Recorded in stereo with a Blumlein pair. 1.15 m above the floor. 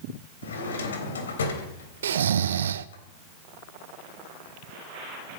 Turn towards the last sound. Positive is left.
turn(degrees=-65)